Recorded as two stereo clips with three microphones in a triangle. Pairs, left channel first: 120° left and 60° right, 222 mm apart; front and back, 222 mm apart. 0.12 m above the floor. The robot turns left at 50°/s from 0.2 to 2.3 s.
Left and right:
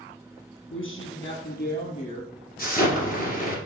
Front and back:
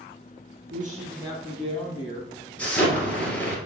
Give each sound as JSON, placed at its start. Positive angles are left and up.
{"t": 0.7, "sound": "a woman speaking", "azimuth_deg": 135, "distance_m": 3.0}
{"t": 2.6, "sound": "an explosion", "azimuth_deg": 80, "distance_m": 2.5}